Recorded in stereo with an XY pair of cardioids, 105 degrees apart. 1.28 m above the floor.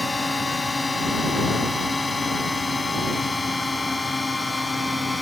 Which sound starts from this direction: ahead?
A drone, at 0.0 s.